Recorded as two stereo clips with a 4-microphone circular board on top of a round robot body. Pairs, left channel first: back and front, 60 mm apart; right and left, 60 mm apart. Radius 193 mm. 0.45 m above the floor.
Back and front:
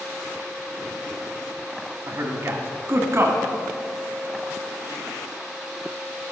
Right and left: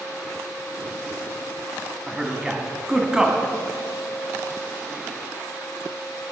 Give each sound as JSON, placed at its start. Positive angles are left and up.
{"t": 2.1, "sound": "a man speaking", "azimuth_deg": 15, "distance_m": 1.8}